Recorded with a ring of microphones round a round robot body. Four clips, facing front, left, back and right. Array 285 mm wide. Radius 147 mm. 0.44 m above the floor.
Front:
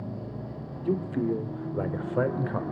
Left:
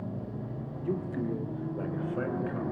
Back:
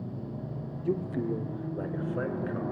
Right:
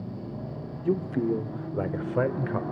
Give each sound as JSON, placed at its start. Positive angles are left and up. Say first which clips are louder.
{"t": 0.8, "sound": "a man speaking", "louder": "right 7 dB, front 3 dB", "azimuth_deg": -80, "distance_m": 1.5}